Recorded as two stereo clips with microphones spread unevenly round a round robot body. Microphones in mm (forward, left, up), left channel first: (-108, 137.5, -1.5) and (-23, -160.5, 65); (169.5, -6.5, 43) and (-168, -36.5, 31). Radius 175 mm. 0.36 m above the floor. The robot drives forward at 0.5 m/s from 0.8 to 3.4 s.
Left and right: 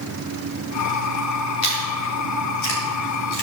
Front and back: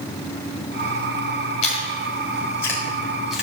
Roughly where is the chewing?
Left.